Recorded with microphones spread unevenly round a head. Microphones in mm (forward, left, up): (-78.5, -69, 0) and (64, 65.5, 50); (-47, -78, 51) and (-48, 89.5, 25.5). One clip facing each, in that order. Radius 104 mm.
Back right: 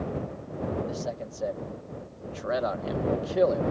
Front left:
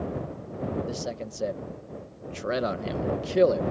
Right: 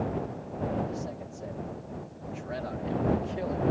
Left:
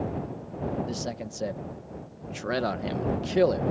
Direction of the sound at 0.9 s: 95° left.